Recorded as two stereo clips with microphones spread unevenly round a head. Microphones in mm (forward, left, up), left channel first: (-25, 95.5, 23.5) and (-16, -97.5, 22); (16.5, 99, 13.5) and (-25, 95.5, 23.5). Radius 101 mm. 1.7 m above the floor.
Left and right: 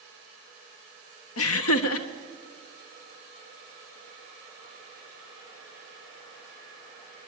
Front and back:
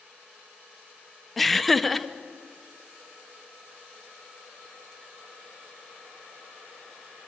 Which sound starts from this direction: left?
Laughter, at 1.4 s.